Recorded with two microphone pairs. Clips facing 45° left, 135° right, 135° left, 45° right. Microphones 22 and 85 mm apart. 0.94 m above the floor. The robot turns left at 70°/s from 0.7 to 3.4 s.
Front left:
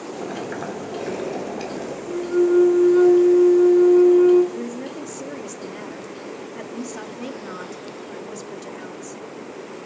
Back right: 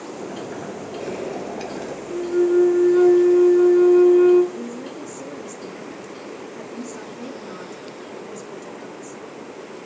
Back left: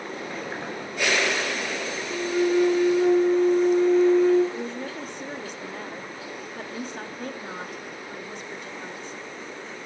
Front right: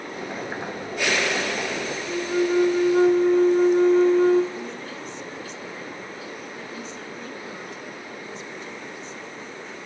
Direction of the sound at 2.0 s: 20° left.